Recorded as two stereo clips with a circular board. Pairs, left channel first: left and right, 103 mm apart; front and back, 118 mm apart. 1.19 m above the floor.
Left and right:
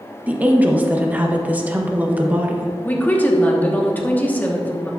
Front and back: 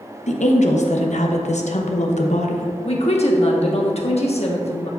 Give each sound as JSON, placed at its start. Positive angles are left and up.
{"t": 0.3, "sound": "a woman speaking", "azimuth_deg": -15, "distance_m": 1.0}
{"t": 2.9, "sound": "a woman speaking", "azimuth_deg": 20, "distance_m": 1.2}